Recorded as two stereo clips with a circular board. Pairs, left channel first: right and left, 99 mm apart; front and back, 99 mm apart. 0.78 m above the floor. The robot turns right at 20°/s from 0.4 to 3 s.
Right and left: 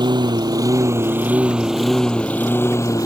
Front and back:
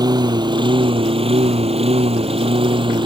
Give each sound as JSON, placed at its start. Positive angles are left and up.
{"t": 0.0, "sound": "a lawn mower", "azimuth_deg": 135}